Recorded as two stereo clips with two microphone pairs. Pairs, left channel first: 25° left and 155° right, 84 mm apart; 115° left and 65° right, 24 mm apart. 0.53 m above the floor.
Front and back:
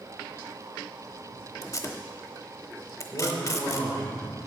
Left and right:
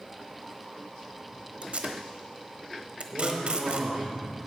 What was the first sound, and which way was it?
Tape being pulled, 30° right.